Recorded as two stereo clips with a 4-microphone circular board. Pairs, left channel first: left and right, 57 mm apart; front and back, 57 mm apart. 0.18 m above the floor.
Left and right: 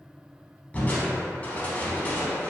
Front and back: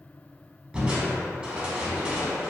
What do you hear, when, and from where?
0.7 s crushing: 125° left, 0.5 m